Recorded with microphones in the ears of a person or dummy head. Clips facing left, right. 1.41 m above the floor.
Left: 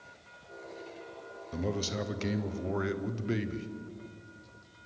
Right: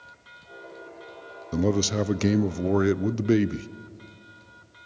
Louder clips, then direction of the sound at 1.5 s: Right 10 dB; 60° right (ahead or behind).